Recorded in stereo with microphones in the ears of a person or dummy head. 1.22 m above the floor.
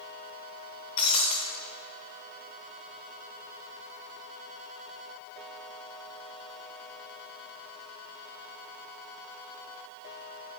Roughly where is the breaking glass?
Left.